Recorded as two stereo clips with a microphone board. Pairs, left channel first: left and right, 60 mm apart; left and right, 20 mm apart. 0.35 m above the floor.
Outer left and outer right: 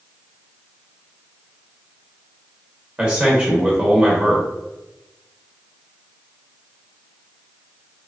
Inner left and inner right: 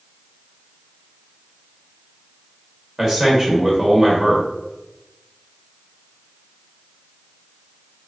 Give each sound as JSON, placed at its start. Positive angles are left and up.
{"t": 3.0, "sound": "a man speaking", "side_deg": -15, "distance_m": 0.9}